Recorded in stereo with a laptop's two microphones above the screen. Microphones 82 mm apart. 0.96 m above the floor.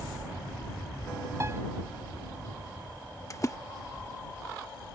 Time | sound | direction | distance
1.4 | a piano | 35° right (ahead or behind) | ?
3.3 | a splash | 40° left (ahead or behind) | ?